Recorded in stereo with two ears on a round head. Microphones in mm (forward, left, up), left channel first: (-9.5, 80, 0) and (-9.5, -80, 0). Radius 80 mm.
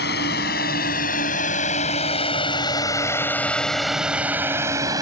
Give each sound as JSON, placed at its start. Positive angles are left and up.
{"t": 0.0, "sound": "a drone", "side_deg": 60}